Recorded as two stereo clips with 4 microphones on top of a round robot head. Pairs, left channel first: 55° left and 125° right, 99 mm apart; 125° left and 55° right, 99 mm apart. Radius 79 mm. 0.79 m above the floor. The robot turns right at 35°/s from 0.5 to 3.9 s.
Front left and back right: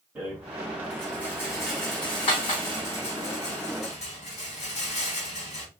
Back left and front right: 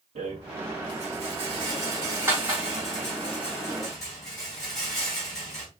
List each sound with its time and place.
0.1 s a rattle: 45° right, 3 m; by 5.7 s 70° left, 3 m